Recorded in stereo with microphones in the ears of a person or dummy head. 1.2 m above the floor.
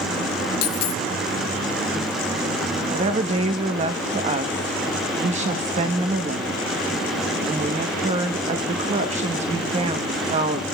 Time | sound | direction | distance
0.6 | a dropped coin | 60° left (ahead or behind) | 1.0 m
2.9 | a woman speaking | 35° right (ahead or behind) | 0.8 m